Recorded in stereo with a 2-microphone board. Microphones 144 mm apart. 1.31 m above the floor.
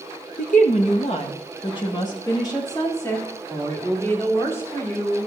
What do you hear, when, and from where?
0.4 s a woman speaking: 65° left (ahead or behind), 1.0 m; by 5.3 s 15° left (ahead or behind), 4 m